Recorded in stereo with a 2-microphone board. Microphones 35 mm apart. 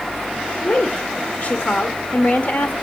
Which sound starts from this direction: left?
A woman speaking, at 0.6 s.